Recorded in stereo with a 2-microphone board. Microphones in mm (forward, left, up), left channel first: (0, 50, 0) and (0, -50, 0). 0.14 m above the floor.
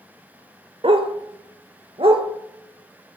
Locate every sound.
0.8 s a dog barking: 65° right (ahead or behind), 0.7 m